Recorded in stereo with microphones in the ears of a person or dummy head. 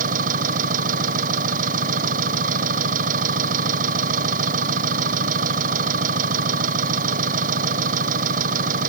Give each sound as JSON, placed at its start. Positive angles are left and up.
{"t": 0.0, "sound": "an engine running", "side_deg": -40}